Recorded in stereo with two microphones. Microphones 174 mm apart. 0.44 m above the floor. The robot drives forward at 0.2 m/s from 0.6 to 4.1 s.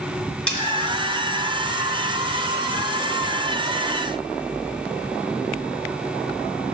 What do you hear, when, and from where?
0.5 s cutlery clinking: 5° left (ahead or behind), 1.4 m